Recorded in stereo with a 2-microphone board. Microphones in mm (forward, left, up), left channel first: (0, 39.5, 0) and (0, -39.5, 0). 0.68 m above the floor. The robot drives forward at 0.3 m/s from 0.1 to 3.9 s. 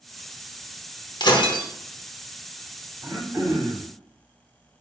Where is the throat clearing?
30° right (ahead or behind), 1.0 m; by 3.9 s 25° right (ahead or behind), 1.2 m.